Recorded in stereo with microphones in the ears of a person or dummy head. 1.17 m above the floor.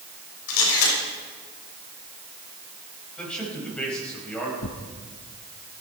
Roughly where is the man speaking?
Centre.